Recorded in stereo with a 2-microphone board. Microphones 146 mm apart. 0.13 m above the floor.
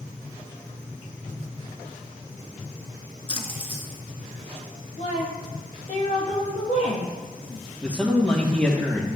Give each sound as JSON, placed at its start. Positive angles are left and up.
{"t": 3.3, "sound": "a splash", "side_deg": 40, "distance_m": 1.4}
{"t": 5.0, "sound": "a woman speaking", "side_deg": 55, "distance_m": 3.0}
{"t": 7.8, "sound": "a man speaking", "side_deg": 10, "distance_m": 3.0}